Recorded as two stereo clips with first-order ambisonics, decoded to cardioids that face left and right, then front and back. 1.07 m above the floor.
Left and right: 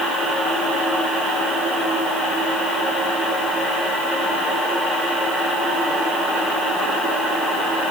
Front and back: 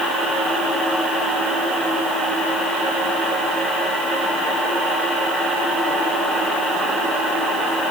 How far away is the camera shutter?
No camera shutter in this recording.